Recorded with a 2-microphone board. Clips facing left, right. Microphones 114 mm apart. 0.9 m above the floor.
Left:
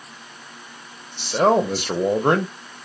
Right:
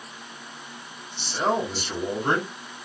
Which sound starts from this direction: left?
A man speaking, at 1.2 s.